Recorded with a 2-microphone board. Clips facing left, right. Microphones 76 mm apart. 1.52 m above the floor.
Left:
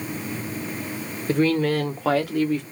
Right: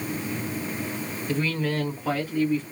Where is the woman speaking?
55° left (ahead or behind), 1.2 m; by 2.6 s 80° left, 1.4 m.